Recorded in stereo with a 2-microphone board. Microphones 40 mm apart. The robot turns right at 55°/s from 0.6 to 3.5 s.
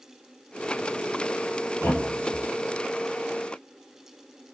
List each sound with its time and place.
1.8 s a thud: 75° left (ahead or behind), 1.4 m; by 2.5 s 40° left (ahead or behind), 1.4 m